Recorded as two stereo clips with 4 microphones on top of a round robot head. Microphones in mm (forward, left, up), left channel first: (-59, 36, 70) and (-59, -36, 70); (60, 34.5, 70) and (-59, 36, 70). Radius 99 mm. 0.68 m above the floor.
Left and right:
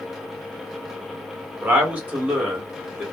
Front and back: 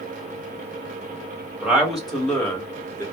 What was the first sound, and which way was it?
A man speaking, 110° right.